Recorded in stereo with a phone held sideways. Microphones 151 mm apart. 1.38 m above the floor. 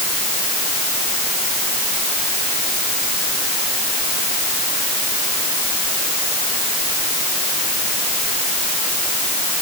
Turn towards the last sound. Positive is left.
No sound to turn to.